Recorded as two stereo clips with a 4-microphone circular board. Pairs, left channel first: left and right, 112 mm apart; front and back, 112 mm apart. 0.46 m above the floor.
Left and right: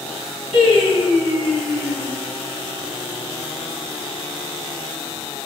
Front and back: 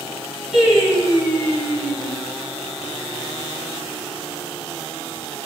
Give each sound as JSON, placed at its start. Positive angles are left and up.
{"t": 0.5, "sound": "singing", "azimuth_deg": 95, "distance_m": 1.8}